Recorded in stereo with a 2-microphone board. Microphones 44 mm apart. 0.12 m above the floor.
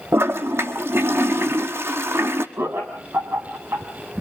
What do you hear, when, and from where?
0.1 s a toilet flushing: 80° right, 1.2 m
2.6 s laughter: 75° right (ahead or behind), 4 m